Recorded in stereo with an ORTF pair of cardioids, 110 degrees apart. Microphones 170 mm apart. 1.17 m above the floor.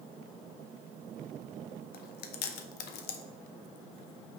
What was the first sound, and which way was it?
Chewing, 70° left.